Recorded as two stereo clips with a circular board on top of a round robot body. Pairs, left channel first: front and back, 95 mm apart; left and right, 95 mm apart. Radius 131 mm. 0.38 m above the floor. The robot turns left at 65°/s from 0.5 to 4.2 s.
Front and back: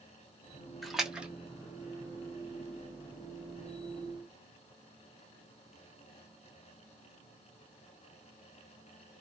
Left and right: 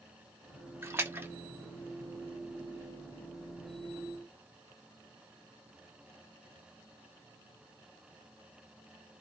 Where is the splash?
90° right, 1.0 m; by 1.3 s 120° right, 1.0 m.